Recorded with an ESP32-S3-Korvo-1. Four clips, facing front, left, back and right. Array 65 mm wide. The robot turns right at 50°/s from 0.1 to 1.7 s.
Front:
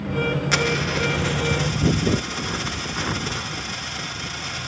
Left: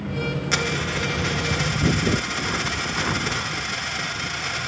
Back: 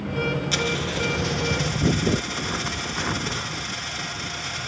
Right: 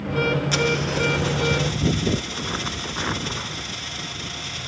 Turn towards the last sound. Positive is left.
turn(degrees=90)